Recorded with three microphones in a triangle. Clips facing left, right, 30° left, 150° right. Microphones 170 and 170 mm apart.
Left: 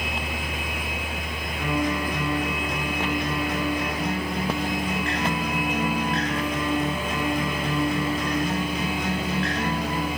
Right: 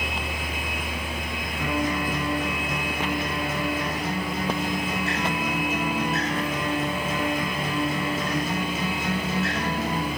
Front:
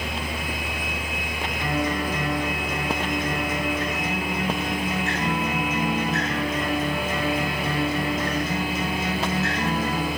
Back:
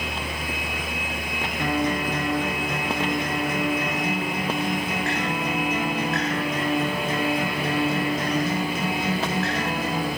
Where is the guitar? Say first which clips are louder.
Left 1 dB, back 2 dB; 175° right, 5 m.